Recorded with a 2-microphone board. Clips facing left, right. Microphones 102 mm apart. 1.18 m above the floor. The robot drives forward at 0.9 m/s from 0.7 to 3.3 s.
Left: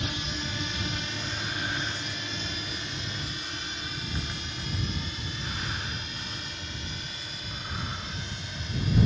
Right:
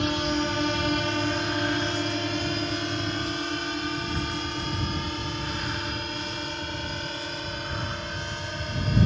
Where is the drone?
60° right (ahead or behind); by 9.1 s 55° right (ahead or behind).